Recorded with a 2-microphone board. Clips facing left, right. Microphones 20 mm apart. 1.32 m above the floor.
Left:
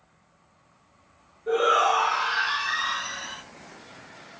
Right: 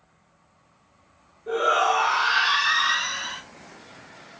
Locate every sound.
1.5 s a shout: 5° left (ahead or behind), 1.2 m; by 3.4 s 80° right, 1.4 m